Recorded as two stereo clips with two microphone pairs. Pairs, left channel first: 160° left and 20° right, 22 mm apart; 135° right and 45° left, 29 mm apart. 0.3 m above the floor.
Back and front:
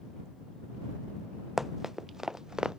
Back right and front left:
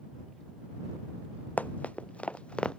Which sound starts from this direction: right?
Running footsteps, at 1.6 s.